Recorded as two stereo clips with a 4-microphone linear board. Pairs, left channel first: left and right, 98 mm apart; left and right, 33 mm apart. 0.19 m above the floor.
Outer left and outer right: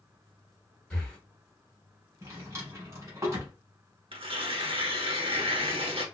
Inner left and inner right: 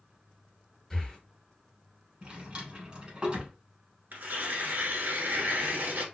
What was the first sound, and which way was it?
Breathing, 10° left (ahead or behind).